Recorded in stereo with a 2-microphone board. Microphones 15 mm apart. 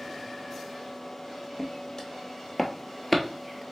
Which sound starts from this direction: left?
Footsteps, at 1.6 s.